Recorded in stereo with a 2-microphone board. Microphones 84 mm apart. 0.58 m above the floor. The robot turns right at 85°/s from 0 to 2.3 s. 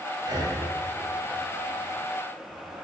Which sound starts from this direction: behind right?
Breathing, at 0.2 s.